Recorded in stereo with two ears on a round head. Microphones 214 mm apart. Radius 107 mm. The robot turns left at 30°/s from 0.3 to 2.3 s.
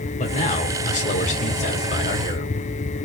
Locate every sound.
0.2 s a man speaking: 110° left, 1.4 m; by 2.5 s 50° left, 1.4 m